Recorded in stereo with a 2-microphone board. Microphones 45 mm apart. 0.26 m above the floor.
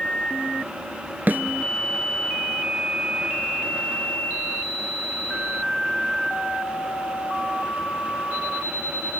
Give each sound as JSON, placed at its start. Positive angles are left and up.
{"t": 1.3, "sound": "a snare drum", "side_deg": -45, "distance_m": 0.8}